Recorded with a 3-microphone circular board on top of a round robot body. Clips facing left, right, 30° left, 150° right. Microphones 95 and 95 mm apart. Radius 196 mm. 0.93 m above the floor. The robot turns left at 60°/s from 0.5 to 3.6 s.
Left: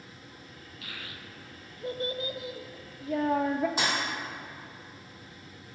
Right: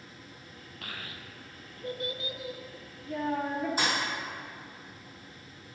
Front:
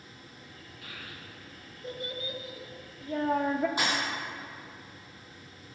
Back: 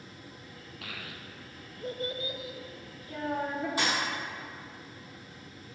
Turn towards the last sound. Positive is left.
turn(degrees=100)